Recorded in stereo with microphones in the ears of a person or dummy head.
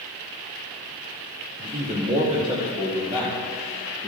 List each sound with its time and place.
1.6 s a man speaking: 45° right (ahead or behind), 1.2 m; by 4.1 s 5° right (ahead or behind), 2.5 m